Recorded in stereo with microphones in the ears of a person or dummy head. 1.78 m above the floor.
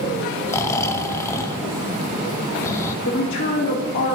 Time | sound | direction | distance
0.5 | snoring | 15° left (ahead or behind) | 0.6 m
3.0 | a woman speaking | 50° left (ahead or behind) | 1.1 m